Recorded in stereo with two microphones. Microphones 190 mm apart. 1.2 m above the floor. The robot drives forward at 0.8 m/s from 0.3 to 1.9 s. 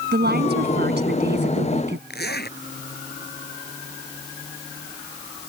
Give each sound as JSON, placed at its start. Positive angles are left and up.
{"t": 0.1, "sound": "a woman speaking", "side_deg": -60}
{"t": 2.1, "sound": "a zipper", "side_deg": 60}